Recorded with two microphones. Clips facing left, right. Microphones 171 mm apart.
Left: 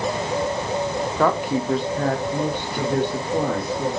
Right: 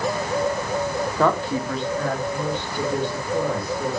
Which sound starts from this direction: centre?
A woman speaking, at 1.2 s.